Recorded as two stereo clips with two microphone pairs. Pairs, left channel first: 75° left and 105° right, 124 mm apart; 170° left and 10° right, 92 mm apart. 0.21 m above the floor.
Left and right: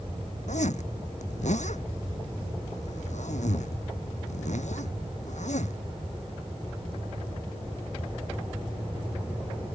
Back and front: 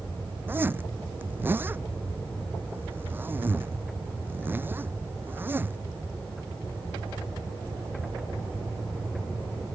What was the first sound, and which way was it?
A zipper, 55° left.